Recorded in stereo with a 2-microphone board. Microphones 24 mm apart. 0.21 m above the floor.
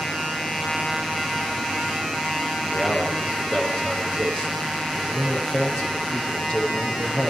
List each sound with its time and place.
2.6 s a man speaking: 45° left (ahead or behind), 7.5 m